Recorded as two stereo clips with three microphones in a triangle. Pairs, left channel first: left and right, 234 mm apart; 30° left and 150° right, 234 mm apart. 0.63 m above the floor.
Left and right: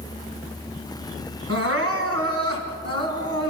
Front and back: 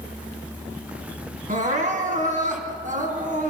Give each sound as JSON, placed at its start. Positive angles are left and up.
{"t": 1.5, "sound": "crying", "azimuth_deg": -95, "distance_m": 2.5}